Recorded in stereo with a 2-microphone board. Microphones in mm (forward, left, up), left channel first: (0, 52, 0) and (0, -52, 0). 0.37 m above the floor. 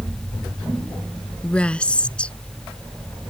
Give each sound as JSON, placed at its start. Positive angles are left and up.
{"t": 1.4, "sound": "a woman speaking", "side_deg": 10}